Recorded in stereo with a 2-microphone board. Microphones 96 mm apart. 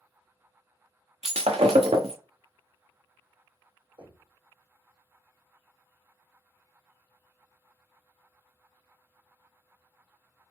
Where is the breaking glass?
90° right, 0.9 m.